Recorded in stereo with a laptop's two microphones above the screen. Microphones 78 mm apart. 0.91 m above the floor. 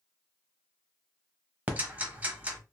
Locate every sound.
1.7 s ticking: 20° right (ahead or behind), 1.0 m